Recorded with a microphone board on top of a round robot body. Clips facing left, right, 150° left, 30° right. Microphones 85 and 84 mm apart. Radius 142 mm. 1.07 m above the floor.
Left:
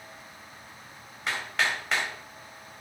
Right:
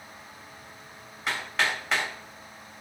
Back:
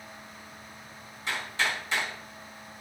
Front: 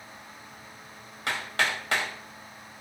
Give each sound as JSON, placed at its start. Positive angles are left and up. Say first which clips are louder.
{"t": 1.3, "sound": "hammering", "louder": "right 1 dB, front 2 dB", "azimuth_deg": 0, "distance_m": 2.5}